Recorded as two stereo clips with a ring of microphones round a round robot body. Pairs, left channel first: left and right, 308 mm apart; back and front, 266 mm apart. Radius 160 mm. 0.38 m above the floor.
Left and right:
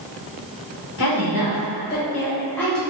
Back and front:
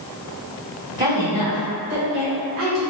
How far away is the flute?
No flute in this recording.